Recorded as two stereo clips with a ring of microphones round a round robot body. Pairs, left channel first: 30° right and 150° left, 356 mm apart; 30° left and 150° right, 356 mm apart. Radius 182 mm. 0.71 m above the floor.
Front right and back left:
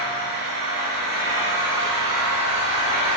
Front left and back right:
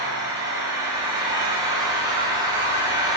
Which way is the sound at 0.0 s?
130° left.